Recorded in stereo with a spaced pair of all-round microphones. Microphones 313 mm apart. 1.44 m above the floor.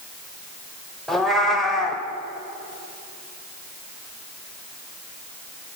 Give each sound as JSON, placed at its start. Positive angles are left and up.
{"t": 1.1, "sound": "a cat meowing", "side_deg": 0, "distance_m": 1.9}